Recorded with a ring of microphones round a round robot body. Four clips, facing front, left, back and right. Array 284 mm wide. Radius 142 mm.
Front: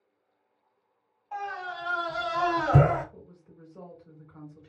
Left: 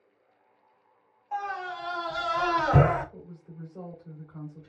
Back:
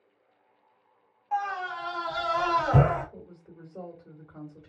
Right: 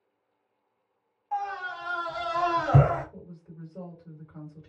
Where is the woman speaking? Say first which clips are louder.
Even, back 4 dB; 170° right, 1.8 m.